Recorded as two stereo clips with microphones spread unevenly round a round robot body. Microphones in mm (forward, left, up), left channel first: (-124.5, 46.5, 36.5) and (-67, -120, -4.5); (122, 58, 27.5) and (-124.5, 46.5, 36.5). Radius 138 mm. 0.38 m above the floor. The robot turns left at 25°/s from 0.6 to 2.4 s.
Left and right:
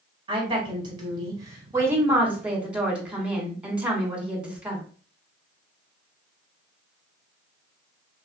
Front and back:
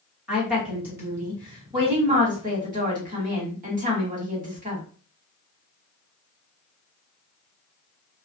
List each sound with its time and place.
0.3 s a woman speaking: 90° right, 1.4 m; by 4.8 s 135° right, 1.4 m